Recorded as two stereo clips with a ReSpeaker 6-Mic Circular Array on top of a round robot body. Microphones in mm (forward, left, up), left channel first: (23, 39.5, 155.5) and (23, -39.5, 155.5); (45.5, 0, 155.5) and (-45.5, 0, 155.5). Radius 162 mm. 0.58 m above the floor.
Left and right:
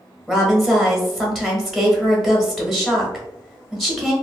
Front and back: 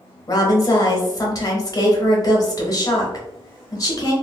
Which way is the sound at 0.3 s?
Straight ahead.